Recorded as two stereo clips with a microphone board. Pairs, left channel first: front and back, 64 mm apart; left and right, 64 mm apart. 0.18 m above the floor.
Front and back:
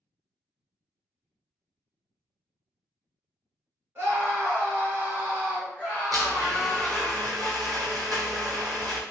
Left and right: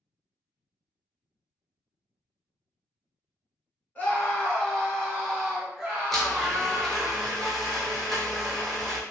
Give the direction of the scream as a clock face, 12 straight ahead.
7 o'clock.